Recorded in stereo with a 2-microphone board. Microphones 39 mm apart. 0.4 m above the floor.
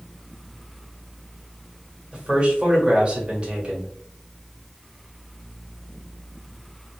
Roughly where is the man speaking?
Right.